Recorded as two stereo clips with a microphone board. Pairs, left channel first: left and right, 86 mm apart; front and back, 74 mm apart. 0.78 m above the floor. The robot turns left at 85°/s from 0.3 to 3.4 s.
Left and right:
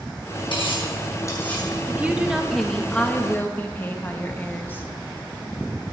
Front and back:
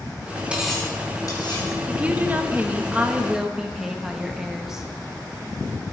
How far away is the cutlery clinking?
About 4.5 m.